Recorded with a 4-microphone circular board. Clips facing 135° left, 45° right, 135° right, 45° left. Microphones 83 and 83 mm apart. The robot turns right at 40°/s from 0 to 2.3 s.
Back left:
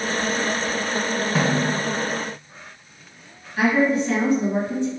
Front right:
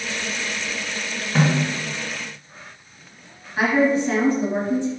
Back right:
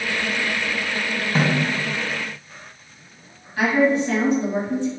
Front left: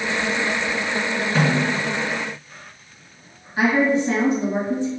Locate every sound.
1.4 s a snare drum: 150° right, 1.8 m; by 1.7 s 135° right, 1.8 m
3.6 s a woman speaking: 5° right, 1.8 m